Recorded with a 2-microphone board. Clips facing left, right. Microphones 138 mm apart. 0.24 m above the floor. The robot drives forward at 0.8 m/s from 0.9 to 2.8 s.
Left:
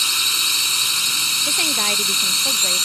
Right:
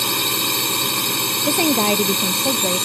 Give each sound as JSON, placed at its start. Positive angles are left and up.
{"t": 0.0, "sound": "a drone", "side_deg": -60}
{"t": 1.4, "sound": "a woman speaking", "side_deg": -40}